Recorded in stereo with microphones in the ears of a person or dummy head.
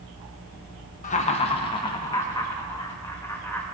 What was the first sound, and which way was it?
Laughter, 40° left (ahead or behind).